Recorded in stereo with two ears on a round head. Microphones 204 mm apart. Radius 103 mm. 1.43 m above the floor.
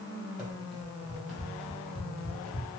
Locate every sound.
0.4 s running footsteps: 5° right (ahead or behind), 1.9 m; by 2.7 s 5° left (ahead or behind), 1.4 m